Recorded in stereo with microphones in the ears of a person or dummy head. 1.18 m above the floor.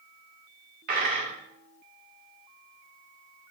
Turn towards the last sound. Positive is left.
turn(degrees=-55)  # may be behind; listen again after turning